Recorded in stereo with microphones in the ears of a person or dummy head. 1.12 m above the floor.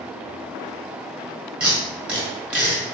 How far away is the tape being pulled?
About 1.4 m.